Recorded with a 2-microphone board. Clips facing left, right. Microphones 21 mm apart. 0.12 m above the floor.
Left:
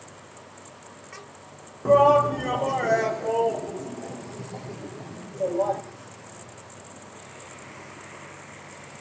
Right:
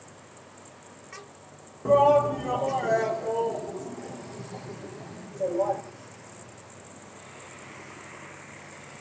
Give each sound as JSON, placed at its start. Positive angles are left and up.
{"t": 1.9, "sound": "a shout", "side_deg": 25, "distance_m": 1.2}